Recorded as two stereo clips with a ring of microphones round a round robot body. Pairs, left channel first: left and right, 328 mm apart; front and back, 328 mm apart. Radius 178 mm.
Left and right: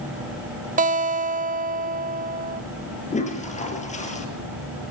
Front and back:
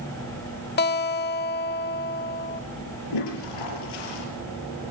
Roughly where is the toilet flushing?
Ahead.